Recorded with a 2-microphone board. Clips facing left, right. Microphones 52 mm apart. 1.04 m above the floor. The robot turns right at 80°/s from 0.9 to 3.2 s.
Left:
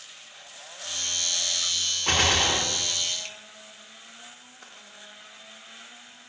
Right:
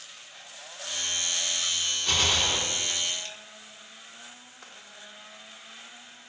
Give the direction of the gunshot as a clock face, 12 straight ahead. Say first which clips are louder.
Left 4 dB; 10 o'clock.